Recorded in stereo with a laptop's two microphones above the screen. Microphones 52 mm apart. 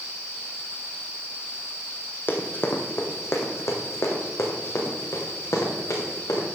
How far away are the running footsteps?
About 1.5 m.